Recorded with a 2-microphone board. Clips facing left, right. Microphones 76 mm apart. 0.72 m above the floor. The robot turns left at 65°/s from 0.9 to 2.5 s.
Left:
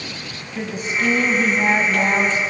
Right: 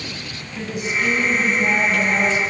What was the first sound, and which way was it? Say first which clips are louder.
A woman speaking: even; 140° left.